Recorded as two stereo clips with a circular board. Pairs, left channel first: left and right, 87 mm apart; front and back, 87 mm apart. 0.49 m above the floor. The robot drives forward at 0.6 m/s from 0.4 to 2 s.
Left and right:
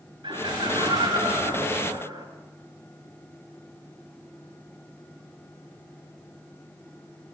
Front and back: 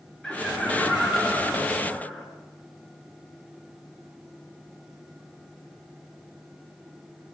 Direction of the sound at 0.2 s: 80° right.